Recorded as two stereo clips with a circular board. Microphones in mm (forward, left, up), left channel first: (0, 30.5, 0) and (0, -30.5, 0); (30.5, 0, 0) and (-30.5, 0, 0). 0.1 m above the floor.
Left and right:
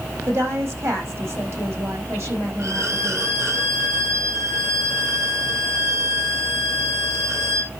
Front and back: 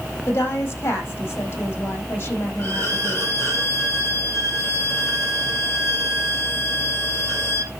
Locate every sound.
0.3 s a woman speaking: 50° right, 5 m
2.6 s a violin: 50° right, 2 m